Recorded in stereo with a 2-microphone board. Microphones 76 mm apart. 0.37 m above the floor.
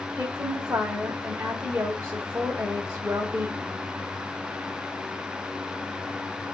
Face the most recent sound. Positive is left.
turn(degrees=-30)  # may be behind; listen again after turning